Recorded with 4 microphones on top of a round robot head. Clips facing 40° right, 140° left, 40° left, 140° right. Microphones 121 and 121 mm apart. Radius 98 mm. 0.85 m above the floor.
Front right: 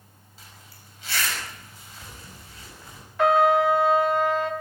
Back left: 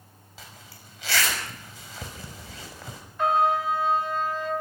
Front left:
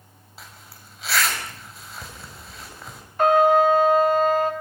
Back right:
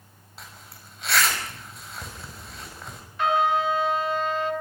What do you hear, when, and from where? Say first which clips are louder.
0.4 s a zipper: back left 4 dB, even; 125° left, 6 m
3.2 s a trumpet: front right 4 dB, front left 7 dB; 10° right, 3 m